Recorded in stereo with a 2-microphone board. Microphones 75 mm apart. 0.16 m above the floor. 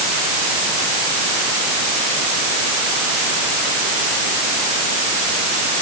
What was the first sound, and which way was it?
Only background noise.